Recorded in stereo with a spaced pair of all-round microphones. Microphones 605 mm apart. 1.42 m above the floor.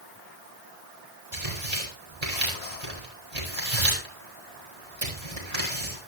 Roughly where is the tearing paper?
Right.